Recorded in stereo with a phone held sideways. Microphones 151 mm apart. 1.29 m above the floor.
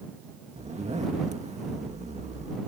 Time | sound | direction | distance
0.6 | a zipper | 45° right (ahead or behind) | ?